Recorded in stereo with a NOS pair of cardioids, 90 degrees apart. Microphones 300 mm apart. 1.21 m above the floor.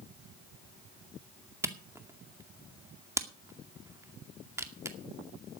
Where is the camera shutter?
10° right, 2 m.